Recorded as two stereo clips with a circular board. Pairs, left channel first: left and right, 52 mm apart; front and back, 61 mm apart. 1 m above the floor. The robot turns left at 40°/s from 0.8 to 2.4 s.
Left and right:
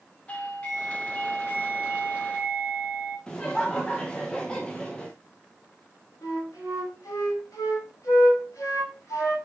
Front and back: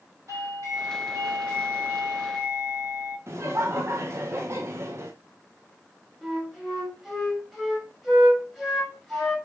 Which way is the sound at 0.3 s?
155° left.